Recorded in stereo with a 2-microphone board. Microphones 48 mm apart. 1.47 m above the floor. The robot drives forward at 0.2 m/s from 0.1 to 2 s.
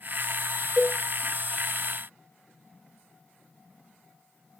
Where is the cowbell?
5° right (ahead or behind), 0.9 m.